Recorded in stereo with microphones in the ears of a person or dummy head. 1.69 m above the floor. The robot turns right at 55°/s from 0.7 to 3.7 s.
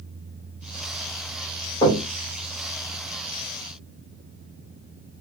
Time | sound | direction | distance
1.8 | knocking | 25° left (ahead or behind) | 1.6 m